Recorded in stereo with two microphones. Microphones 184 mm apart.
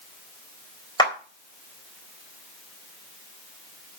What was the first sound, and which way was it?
A clap, 25° left (ahead or behind).